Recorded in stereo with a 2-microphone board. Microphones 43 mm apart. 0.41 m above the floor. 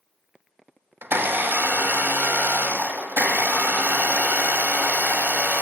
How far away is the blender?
About 0.8 m.